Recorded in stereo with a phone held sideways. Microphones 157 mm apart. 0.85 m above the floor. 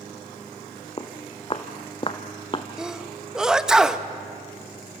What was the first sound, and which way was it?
Footsteps, 35° left (ahead or behind).